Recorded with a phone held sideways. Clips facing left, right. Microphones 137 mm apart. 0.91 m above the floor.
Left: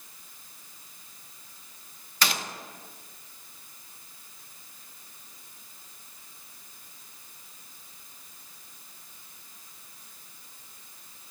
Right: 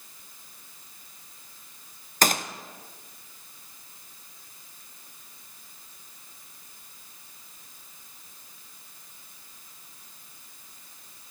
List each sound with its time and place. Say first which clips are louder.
2.2 s a gunshot: right 5 dB; 50° right (ahead or behind), 0.5 m